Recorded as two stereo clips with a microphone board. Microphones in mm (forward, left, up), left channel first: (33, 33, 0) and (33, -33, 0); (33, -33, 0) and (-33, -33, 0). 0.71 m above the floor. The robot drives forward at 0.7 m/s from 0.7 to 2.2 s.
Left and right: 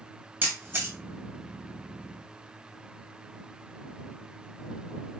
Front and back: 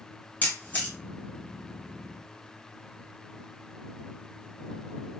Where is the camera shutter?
50° right, 0.9 m; by 0.9 s 65° right, 0.9 m.